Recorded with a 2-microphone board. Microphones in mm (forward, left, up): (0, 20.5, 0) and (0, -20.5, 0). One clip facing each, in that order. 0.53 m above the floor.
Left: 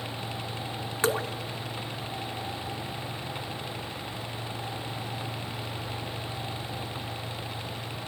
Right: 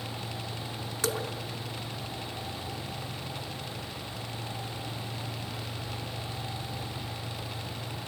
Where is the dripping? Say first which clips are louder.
Left 5 dB; 30° left (ahead or behind), 0.6 m.